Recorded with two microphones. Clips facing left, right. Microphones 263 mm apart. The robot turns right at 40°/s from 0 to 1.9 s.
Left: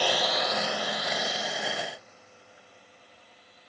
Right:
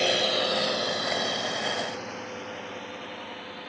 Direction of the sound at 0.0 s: 25° right (ahead or behind).